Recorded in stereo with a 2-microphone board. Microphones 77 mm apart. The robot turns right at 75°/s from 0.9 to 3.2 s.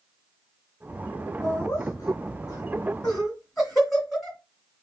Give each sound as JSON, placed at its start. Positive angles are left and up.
{"t": 1.4, "sound": "laughter", "side_deg": 35, "distance_m": 2.0}